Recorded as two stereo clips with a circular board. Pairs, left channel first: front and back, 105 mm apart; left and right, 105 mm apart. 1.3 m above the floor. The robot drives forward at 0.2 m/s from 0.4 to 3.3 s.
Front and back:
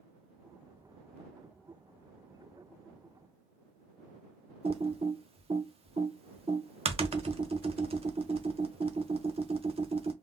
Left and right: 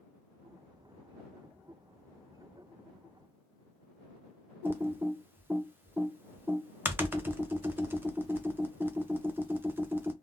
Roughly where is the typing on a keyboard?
Behind.